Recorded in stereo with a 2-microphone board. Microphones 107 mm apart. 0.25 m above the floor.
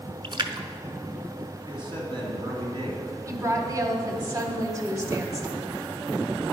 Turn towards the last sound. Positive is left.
turn(degrees=-35)  # may be behind; listen again after turning